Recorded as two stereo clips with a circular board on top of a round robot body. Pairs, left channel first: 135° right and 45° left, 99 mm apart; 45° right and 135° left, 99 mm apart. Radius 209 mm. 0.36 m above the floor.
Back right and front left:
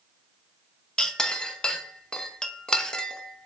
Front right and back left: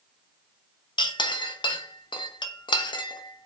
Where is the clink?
55° right, 0.6 m.